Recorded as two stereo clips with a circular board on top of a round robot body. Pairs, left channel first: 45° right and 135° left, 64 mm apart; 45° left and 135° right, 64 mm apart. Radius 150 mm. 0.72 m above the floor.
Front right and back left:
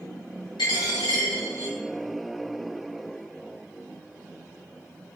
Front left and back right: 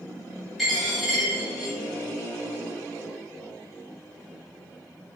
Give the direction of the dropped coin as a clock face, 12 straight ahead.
2 o'clock.